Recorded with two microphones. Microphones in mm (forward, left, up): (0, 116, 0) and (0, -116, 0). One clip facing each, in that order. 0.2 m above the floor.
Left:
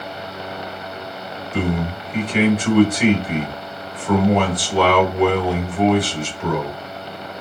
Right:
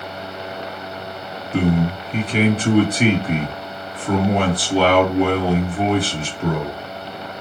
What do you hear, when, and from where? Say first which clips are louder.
1.5 s a man speaking: right 4 dB; 30° right (ahead or behind), 1.8 m